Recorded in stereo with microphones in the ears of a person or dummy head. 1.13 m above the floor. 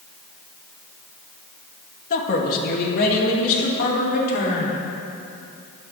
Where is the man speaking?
45° left (ahead or behind), 1.3 m; by 4.8 s 60° left (ahead or behind), 3.5 m.